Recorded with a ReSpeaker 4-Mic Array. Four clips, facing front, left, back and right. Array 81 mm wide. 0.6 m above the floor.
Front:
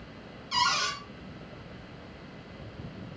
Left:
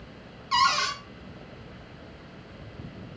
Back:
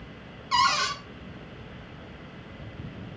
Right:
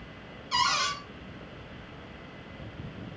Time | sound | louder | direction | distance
0.5 | a cupboard door | left 4 dB, back 5 dB | 140° left | 1.1 m